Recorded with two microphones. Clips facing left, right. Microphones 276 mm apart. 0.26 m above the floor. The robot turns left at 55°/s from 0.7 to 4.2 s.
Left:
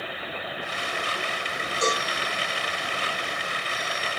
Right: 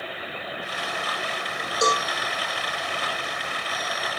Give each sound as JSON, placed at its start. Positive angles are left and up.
{"t": 1.8, "sound": "a cowbell", "side_deg": -50, "distance_m": 5.5}